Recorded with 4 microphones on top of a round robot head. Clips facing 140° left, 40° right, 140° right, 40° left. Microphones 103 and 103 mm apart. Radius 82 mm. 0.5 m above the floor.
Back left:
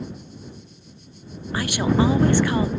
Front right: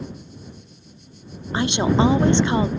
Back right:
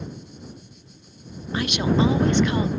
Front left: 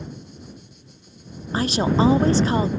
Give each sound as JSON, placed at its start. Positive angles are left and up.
{"t": 1.5, "sound": "a woman speaking", "azimuth_deg": 10}